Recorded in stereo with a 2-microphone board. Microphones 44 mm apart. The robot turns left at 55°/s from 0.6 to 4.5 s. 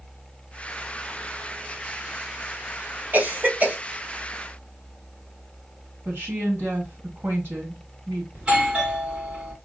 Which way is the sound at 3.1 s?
50° right (ahead or behind).